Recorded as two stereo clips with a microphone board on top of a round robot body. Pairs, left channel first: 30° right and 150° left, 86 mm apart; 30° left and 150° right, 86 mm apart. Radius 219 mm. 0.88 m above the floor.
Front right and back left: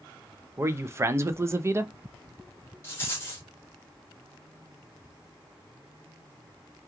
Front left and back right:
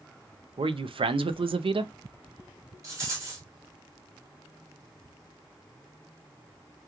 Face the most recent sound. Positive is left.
turn(degrees=-95)